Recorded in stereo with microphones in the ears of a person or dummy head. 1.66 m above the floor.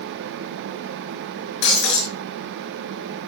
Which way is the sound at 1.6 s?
75° left (ahead or behind).